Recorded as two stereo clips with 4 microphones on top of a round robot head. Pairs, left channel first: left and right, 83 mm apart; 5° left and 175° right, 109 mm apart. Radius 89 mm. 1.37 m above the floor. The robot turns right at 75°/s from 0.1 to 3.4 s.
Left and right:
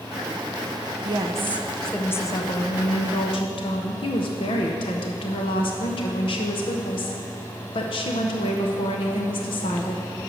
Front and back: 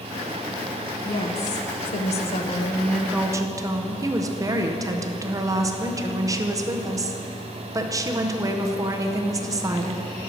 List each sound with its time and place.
1.1 s a woman speaking: 55° right, 0.7 m; by 10.1 s 125° left, 0.7 m